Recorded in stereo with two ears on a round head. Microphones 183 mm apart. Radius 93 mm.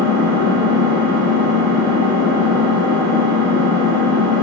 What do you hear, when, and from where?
0.0 s an engine running: 65° right (ahead or behind), 7.5 m